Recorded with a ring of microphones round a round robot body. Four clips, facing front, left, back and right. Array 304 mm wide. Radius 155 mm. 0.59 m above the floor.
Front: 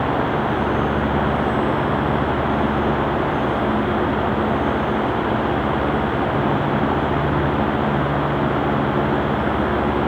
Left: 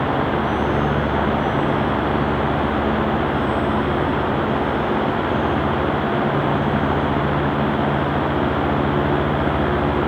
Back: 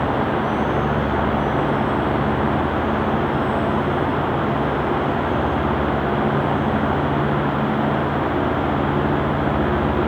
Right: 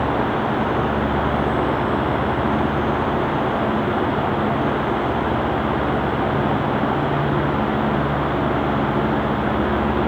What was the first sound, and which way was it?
Only background noise.